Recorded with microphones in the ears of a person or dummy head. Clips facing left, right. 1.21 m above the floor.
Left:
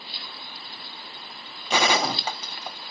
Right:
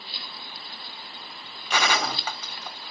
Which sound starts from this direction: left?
A gunshot, at 1.7 s.